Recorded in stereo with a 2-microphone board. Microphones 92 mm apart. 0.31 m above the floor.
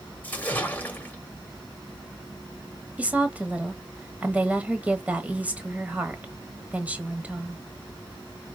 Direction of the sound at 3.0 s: 15° right (ahead or behind).